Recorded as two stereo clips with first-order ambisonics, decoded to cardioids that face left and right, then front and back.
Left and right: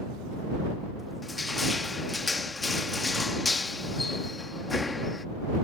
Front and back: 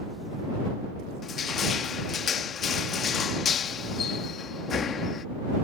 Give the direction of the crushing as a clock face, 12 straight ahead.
11 o'clock.